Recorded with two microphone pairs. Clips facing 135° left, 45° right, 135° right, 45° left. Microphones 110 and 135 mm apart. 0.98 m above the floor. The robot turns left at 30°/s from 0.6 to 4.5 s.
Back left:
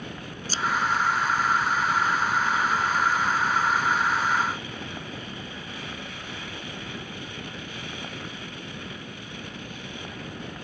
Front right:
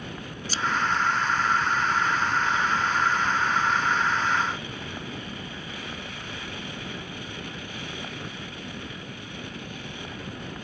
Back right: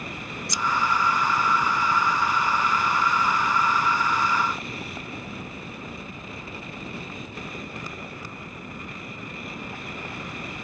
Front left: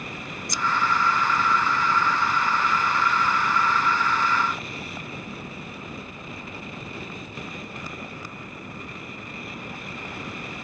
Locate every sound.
0.5 s scissors: 85° left